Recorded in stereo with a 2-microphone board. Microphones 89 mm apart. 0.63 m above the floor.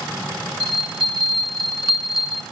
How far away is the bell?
About 1.7 m.